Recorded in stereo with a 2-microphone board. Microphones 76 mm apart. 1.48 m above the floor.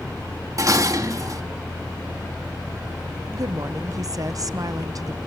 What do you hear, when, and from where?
0.6 s dishes clattering: 45° right (ahead or behind), 1.7 m
3.3 s a woman speaking: 50° right (ahead or behind), 0.9 m